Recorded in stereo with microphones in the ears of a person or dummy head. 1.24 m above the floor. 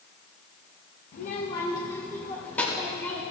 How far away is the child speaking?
About 0.8 m.